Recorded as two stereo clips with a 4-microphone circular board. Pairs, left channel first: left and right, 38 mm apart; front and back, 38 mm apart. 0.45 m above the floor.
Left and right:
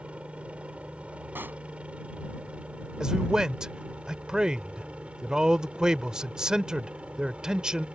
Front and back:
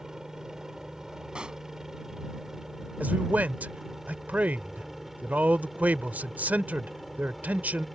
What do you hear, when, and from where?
0.0 s a helicopter: 115° right; by 8.0 s 95° right
1.4 s a pop: 115° right
3.0 s a man speaking: 155° right